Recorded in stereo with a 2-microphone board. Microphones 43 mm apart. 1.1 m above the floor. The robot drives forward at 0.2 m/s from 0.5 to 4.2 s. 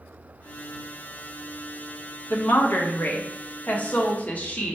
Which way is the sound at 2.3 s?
55° left (ahead or behind).